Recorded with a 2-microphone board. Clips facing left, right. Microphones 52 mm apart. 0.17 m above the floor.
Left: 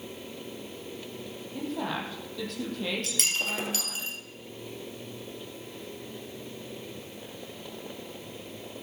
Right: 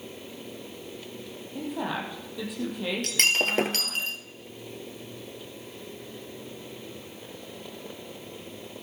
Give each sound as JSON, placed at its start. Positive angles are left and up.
{"t": 1.6, "sound": "a woman speaking", "side_deg": -10, "distance_m": 5.5}
{"t": 3.0, "sound": "breaking glass", "side_deg": -55, "distance_m": 1.6}